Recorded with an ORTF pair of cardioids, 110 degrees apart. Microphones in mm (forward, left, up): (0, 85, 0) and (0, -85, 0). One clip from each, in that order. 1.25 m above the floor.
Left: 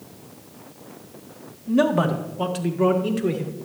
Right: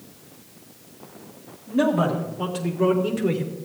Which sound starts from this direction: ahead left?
A man speaking, at 1.7 s.